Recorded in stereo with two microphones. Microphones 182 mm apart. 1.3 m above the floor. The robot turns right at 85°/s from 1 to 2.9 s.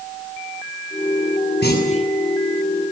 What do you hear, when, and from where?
1.6 s a clunk: 115° left, 7.5 m; by 2.0 s 150° left, 7.5 m